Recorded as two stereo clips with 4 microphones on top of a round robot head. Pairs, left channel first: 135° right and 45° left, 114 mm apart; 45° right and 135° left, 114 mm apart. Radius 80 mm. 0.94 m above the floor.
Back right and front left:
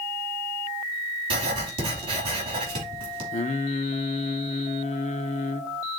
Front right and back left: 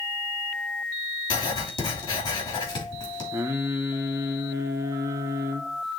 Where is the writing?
5° left, 3 m.